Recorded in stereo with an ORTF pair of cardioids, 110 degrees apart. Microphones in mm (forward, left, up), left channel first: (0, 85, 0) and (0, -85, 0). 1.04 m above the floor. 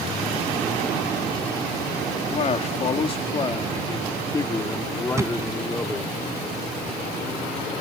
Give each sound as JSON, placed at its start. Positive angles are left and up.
{"t": 2.3, "sound": "a man speaking", "azimuth_deg": 45}
{"t": 5.2, "sound": "a thud", "azimuth_deg": -15}